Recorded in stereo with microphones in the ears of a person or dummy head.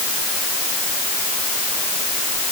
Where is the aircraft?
I don't hear an aircraft.